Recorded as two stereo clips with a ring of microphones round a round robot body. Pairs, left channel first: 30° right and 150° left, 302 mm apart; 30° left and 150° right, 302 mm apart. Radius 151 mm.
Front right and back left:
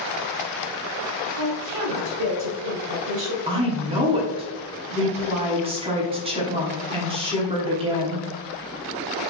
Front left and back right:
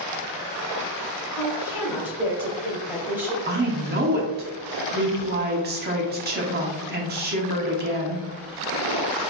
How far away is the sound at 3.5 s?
About 1.0 m.